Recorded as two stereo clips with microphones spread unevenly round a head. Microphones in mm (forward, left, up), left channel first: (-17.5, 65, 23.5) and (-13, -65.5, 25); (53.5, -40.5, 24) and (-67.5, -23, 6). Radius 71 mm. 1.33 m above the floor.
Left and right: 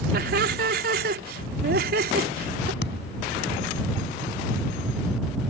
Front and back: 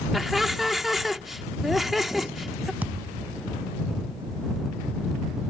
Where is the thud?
90° left.